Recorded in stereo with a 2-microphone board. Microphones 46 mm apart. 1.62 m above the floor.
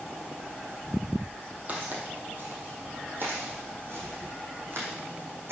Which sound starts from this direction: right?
Footsteps, at 1.7 s.